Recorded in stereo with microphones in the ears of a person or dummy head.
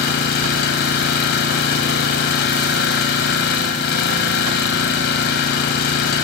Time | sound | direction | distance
0.0 | an engine running | 60° left (ahead or behind) | 2.5 m